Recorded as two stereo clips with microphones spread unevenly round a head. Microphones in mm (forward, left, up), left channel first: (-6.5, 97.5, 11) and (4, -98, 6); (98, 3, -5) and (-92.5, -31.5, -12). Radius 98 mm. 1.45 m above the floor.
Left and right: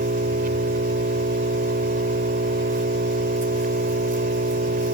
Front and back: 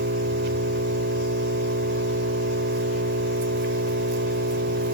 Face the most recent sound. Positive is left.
turn(degrees=-135)